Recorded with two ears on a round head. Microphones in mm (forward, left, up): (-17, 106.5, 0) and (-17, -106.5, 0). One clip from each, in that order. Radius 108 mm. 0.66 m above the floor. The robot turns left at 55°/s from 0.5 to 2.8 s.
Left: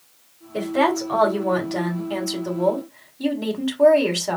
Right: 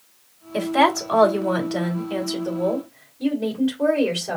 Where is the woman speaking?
110° right, 2.5 m; by 4.4 s 125° left, 2.5 m.